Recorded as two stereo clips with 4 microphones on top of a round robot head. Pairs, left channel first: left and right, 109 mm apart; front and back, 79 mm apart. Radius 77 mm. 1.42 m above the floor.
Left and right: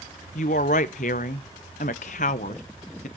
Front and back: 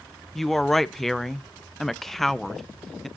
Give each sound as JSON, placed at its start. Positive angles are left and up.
{"t": 0.3, "sound": "a woman speaking", "azimuth_deg": 85, "distance_m": 0.5}